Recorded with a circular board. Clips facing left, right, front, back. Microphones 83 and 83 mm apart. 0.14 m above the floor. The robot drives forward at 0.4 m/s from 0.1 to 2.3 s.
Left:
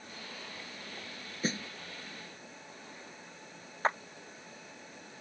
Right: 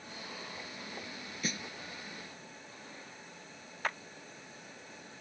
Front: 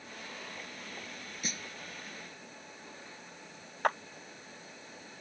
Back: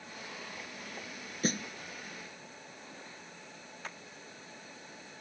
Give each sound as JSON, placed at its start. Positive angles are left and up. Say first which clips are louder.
{"t": 1.4, "sound": "a snare drum", "louder": "left 5 dB, back 10 dB", "azimuth_deg": 140}
{"t": 3.8, "sound": "a clap", "louder": "left 6 dB, front 17 dB", "azimuth_deg": 30}